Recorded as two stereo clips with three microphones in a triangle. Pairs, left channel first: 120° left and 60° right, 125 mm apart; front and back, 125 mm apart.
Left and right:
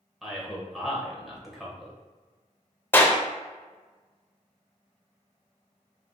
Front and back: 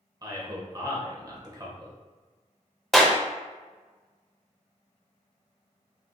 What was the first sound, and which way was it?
A man speaking, 145° right.